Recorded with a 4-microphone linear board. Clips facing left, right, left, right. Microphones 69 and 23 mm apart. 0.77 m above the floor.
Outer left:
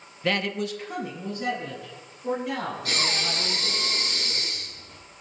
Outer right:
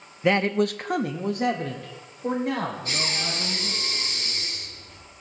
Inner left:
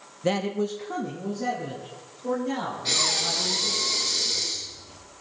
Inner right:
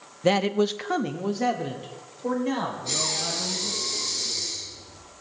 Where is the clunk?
No clunk in this recording.